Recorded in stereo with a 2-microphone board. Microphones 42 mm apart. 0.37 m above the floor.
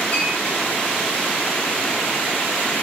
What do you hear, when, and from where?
0.1 s a clink: 50° left (ahead or behind), 1.3 m